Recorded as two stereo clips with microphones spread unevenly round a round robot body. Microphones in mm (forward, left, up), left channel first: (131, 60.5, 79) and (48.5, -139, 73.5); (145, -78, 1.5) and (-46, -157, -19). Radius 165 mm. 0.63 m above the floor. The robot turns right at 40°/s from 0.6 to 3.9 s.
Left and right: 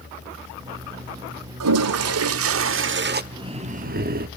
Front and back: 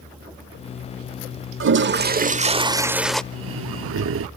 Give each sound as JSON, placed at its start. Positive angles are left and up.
{"t": 1.6, "sound": "a toilet flushing", "azimuth_deg": -130, "distance_m": 0.8}
{"t": 3.3, "sound": "breathing", "azimuth_deg": 175, "distance_m": 0.6}